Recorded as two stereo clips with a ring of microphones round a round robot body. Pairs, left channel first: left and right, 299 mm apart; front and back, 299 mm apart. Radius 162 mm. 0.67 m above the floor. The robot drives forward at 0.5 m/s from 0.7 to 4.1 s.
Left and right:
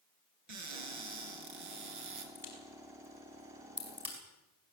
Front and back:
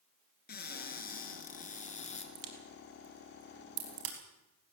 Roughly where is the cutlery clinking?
I don't hear cutlery clinking.